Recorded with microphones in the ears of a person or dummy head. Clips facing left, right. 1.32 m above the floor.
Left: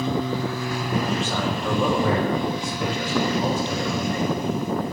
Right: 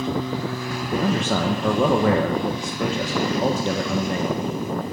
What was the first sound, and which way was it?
A man speaking, 45° right (ahead or behind).